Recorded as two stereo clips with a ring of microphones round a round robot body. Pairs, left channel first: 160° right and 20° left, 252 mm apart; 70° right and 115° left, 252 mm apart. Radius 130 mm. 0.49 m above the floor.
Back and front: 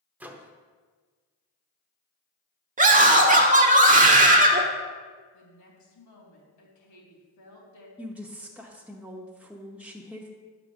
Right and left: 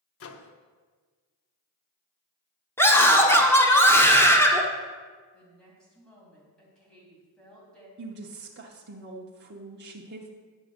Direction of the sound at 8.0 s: 105° left.